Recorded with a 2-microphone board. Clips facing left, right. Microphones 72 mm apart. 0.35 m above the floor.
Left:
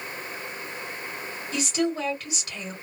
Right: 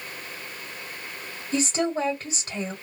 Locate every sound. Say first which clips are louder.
1.5 s a woman speaking: right 2 dB; 35° right (ahead or behind), 1.8 m